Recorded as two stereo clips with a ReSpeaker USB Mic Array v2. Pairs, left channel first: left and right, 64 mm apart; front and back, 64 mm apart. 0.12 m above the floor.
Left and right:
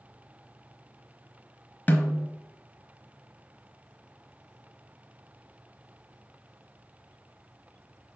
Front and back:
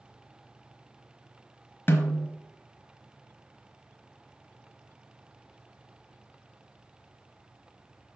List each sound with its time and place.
1.9 s a snare drum: 40° left, 1.0 m